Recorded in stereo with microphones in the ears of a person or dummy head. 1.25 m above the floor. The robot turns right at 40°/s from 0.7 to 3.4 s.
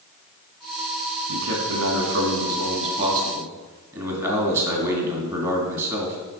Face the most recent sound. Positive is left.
turn(degrees=-25)